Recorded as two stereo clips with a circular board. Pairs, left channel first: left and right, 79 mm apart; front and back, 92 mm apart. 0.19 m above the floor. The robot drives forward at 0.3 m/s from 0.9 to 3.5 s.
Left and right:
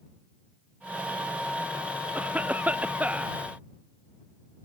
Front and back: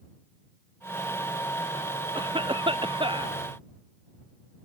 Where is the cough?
160° right.